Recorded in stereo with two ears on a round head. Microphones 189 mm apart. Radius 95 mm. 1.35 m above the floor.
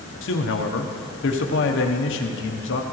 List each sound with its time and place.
0.2 s a man speaking: 65° left (ahead or behind), 0.9 m